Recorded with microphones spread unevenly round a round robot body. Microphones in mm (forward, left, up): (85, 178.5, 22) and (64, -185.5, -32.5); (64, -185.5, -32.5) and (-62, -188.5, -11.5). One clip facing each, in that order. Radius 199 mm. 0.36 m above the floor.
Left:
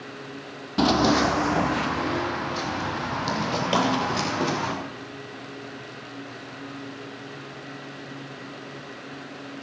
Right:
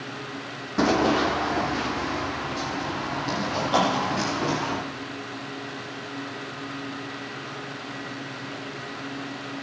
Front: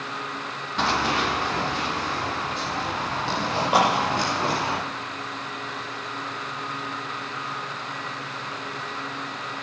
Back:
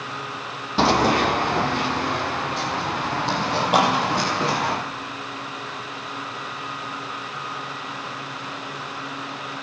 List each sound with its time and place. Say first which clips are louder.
0.8 s running footsteps: left 1 dB, back 6 dB; 150° left, 0.5 m; by 4.7 s 115° left, 5 m
3.7 s a clap: even, back 1 dB; 85° left, 8.5 m